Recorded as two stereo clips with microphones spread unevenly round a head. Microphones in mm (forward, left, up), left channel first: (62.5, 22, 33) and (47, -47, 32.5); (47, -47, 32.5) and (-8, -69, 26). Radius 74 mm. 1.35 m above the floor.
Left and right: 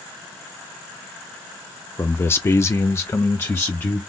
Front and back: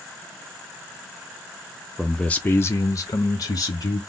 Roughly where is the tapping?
No tapping in this recording.